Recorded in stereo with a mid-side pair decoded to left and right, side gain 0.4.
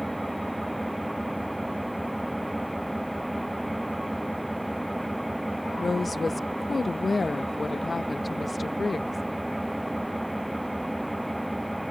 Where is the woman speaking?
30° left.